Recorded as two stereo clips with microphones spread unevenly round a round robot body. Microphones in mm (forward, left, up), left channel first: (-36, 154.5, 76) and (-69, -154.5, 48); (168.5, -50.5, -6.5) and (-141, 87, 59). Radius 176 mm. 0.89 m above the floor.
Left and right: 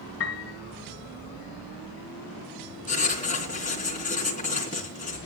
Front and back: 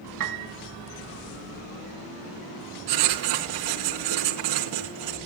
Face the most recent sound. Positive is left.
turn(degrees=150)